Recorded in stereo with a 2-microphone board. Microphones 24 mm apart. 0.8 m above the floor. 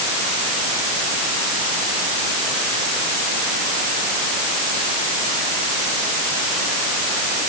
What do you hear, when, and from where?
Only background noise.